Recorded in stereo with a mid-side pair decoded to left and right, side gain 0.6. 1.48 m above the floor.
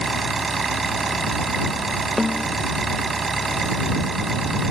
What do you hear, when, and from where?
0.0 s an engine running: 25° right
2.2 s a snare drum: 15° left